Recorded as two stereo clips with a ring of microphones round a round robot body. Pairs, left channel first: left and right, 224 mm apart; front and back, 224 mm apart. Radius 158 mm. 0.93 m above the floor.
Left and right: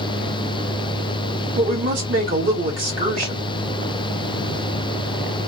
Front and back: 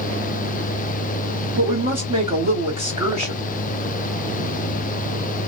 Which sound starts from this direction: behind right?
A woman speaking, at 1.6 s.